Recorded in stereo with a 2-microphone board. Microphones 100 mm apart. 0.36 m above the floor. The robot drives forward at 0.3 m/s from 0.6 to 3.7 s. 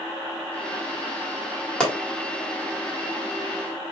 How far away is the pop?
About 1.5 m.